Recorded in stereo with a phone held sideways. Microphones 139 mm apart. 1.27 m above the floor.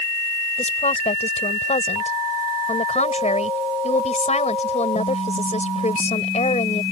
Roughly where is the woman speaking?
Left.